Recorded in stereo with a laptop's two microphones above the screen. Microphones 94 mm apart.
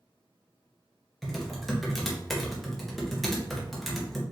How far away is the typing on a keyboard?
About 0.8 m.